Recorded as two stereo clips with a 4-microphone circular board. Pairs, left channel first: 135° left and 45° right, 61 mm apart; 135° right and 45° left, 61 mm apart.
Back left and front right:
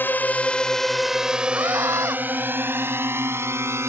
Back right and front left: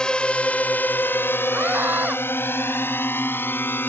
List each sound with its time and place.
0.0 s a drone: 155° left; by 3.9 s 85° right
1.5 s a scream: 15° right